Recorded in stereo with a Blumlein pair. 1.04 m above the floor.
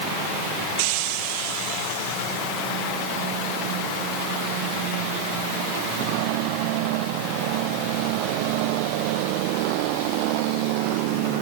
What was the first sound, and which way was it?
Only background noise.